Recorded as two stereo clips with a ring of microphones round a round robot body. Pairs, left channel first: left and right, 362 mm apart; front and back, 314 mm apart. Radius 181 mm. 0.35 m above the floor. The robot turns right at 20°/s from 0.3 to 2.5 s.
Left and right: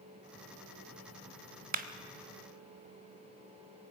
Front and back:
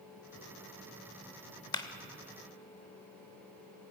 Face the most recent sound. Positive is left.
turn(degrees=-45)